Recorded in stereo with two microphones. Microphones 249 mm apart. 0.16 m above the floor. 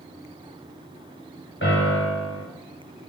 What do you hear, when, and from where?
1.6 s a piano: 50° left (ahead or behind), 9.5 m